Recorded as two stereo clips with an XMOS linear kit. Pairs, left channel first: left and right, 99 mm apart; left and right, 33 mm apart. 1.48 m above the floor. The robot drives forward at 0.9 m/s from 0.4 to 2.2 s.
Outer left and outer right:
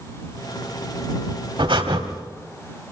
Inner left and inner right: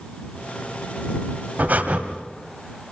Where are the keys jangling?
I don't hear keys jangling.